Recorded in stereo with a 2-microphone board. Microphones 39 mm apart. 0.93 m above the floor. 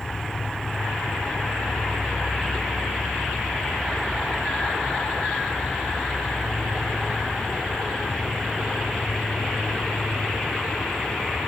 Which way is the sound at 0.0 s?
20° left (ahead or behind).